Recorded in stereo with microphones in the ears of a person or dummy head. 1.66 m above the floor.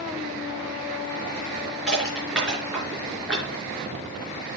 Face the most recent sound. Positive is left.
turn(degrees=0)  # may be behind; listen again after turning